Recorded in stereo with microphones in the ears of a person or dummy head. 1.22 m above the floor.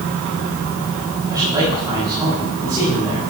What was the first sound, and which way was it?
A man speaking, 15° right (ahead or behind).